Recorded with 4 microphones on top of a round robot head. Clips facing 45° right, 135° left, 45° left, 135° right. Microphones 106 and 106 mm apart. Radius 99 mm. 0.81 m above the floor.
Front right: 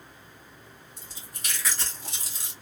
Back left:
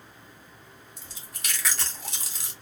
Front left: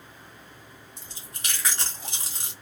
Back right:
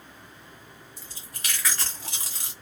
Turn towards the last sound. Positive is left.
turn(degrees=110)